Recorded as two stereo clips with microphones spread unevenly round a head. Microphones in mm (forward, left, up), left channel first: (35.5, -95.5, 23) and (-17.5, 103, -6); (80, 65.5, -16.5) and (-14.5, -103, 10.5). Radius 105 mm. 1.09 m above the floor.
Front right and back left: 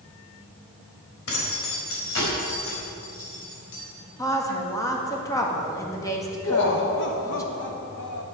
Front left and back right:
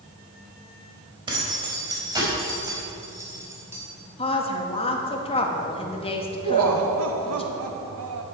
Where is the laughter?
115° right, 0.7 m.